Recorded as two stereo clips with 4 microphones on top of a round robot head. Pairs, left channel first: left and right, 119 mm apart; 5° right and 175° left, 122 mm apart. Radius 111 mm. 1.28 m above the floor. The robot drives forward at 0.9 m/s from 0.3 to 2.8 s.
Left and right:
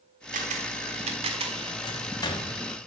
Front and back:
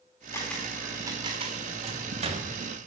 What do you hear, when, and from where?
0.3 s a camera shutter: 80° right, 1.3 m; by 1.7 s 135° right, 1.7 m
1.8 s a microwave: 140° left, 2.5 m; by 2.6 s 150° left, 3 m